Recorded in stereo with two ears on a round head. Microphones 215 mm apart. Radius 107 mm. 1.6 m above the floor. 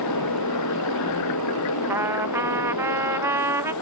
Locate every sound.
0.0 s a motorcycle: 85° left; by 3.8 s 80° left
1.9 s a trumpet: 10° right (ahead or behind)